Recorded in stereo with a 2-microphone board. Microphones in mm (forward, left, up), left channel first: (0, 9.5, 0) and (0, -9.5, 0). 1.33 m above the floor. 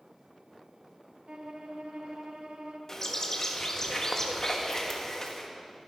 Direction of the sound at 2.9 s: 25° left (ahead or behind).